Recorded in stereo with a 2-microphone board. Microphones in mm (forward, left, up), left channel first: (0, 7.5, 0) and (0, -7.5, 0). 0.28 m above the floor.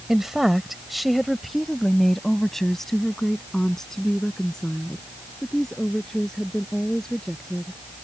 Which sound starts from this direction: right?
A woman speaking, at 0.1 s.